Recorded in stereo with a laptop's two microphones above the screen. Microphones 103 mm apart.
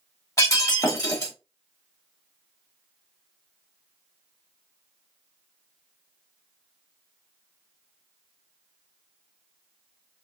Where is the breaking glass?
30° left (ahead or behind), 1.0 m.